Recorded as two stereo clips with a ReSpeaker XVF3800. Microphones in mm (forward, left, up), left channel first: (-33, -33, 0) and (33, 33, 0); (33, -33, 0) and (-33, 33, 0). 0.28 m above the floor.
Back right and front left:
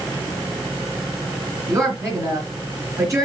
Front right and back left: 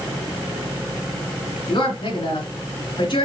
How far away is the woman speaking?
About 3 m.